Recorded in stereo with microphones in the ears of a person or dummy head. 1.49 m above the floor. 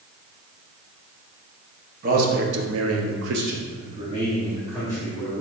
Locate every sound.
2.0 s a man speaking: 50° right (ahead or behind), 0.9 m; by 5.4 s 10° right (ahead or behind), 1.7 m